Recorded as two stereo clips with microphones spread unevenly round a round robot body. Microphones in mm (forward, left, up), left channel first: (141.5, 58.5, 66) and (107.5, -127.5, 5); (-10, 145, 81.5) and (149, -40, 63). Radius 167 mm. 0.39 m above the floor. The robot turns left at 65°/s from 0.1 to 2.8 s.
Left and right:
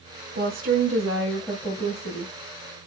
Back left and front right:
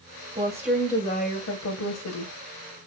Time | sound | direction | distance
0.3 | a woman speaking | 115° right | 2.5 m